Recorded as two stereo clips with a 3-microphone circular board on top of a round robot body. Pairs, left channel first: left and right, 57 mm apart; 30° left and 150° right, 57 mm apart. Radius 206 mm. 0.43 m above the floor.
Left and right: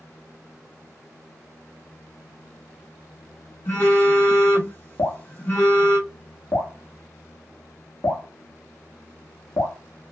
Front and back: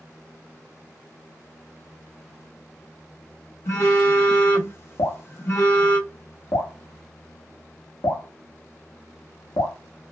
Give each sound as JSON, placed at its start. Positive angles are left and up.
{"t": 3.6, "sound": "a phone buzzing", "azimuth_deg": 50, "distance_m": 1.6}
{"t": 5.0, "sound": "dripping", "azimuth_deg": 40, "distance_m": 1.0}